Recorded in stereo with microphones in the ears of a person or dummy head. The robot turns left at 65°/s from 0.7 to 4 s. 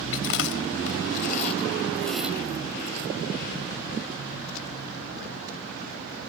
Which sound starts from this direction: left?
Chewing, at 0.1 s.